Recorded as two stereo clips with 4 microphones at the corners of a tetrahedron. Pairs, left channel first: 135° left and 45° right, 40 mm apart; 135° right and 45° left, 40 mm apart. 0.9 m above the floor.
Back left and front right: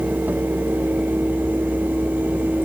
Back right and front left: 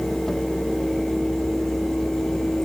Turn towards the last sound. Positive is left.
No sound to turn to.